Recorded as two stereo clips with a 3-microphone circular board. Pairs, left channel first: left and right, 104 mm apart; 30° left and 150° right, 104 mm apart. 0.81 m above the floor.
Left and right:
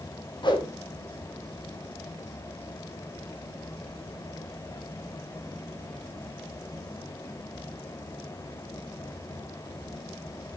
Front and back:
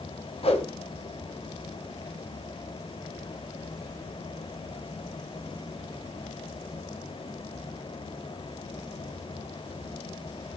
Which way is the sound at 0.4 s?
50° left.